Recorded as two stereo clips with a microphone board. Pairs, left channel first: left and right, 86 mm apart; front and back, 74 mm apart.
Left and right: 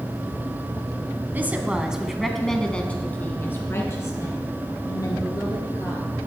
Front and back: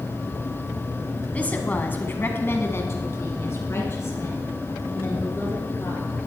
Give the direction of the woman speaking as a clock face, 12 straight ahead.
2 o'clock.